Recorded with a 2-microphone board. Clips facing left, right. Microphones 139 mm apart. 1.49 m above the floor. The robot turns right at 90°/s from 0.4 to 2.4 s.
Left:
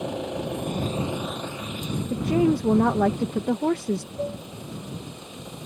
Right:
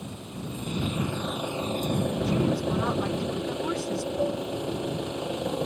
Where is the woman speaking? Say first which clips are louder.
Left 9 dB; 40° left (ahead or behind); by 4.1 s 60° left (ahead or behind).